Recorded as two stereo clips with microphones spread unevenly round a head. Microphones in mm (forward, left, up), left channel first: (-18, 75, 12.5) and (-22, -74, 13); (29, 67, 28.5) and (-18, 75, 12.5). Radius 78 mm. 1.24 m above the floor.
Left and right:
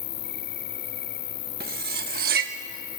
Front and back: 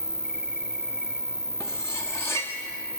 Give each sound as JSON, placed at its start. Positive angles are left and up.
{"t": 0.0, "sound": "an insect", "azimuth_deg": 90, "distance_m": 3.0}
{"t": 1.6, "sound": "cutlery clinking", "azimuth_deg": -60, "distance_m": 1.1}